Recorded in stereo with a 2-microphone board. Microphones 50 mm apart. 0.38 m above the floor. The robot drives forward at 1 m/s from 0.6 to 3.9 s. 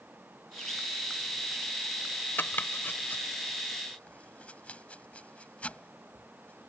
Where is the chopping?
45° left (ahead or behind); by 6.7 s 25° left (ahead or behind).